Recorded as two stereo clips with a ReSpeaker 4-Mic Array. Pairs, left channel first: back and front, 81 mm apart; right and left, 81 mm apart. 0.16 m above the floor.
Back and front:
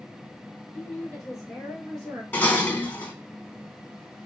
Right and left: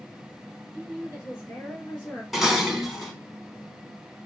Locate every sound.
0.7 s a woman speaking: 125° right, 1.5 m; by 2.2 s 40° right, 1.5 m
2.3 s dishes clattering: 175° left, 0.8 m